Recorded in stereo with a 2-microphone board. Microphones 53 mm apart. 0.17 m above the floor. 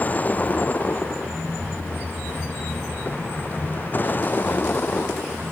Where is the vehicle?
35° left (ahead or behind); by 5.5 s 40° left (ahead or behind).